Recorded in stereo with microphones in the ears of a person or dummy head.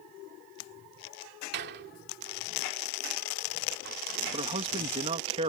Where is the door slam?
55° right (ahead or behind).